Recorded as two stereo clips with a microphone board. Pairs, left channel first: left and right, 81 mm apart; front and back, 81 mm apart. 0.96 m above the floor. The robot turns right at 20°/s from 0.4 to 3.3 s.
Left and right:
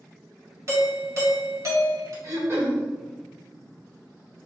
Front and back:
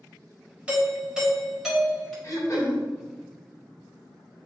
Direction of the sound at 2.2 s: 45° right.